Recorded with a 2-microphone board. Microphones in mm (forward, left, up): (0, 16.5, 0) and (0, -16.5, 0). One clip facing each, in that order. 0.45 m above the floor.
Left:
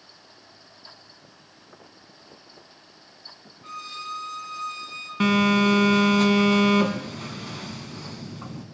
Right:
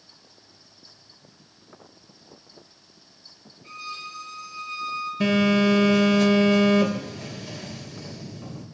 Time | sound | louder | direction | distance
3.6 | a violin | left 1 dB | 80° left | 5 m
5.2 | a phone buzzing | left 1 dB | 55° left (ahead or behind) | 2.0 m